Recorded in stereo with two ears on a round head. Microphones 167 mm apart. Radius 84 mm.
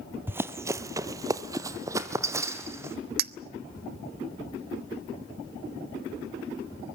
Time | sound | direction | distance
0.3 | running footsteps | 10° right (ahead or behind) | 1.0 m
3.2 | a clink | 55° right (ahead or behind) | 0.7 m